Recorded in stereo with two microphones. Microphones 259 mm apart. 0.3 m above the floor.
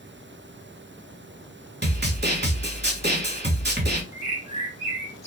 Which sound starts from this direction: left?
A bird, at 4.1 s.